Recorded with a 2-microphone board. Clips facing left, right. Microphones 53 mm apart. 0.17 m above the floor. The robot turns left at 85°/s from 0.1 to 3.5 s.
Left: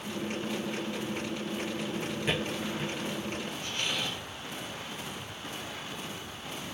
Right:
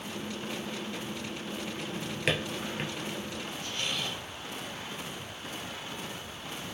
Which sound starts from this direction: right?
A drawer, at 1.8 s.